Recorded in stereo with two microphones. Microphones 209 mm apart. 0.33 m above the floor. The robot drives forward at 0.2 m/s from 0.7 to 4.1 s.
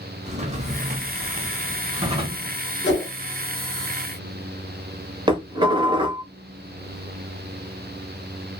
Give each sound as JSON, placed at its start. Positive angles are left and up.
{"t": 0.2, "sound": "a drawer", "side_deg": -30, "distance_m": 0.7}
{"t": 2.8, "sound": "a whoosh", "side_deg": 55, "distance_m": 0.9}
{"t": 5.3, "sound": "dishes clattering", "side_deg": -25, "distance_m": 0.7}